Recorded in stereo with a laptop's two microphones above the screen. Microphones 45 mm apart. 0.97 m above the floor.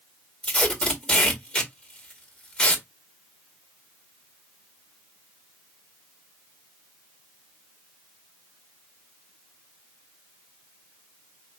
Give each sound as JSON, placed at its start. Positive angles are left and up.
{"t": 0.4, "sound": "tape being pulled", "side_deg": 20, "distance_m": 2.0}